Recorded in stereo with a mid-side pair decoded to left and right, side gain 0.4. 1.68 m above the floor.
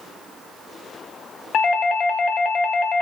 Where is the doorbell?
65° left, 0.6 m.